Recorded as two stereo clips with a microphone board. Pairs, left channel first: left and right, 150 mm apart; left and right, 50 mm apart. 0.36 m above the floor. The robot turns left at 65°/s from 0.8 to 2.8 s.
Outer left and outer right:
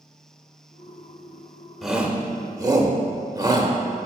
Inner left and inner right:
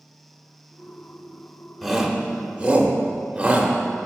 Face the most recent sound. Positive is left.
turn(degrees=-25)  # may be behind; listen again after turning